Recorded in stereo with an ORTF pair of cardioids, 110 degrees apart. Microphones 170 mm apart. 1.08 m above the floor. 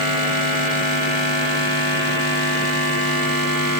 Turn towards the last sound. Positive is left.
No sound to turn to.